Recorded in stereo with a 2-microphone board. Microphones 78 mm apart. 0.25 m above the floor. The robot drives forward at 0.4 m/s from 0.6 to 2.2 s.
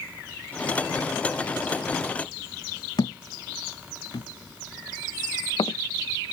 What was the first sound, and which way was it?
A thud, 65° left (ahead or behind).